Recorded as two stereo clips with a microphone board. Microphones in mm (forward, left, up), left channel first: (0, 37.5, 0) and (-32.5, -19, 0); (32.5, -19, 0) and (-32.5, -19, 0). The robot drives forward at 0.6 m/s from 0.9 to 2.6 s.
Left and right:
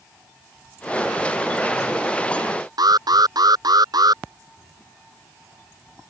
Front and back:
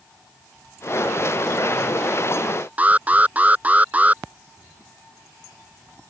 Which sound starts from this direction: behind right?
An alarm, at 2.8 s.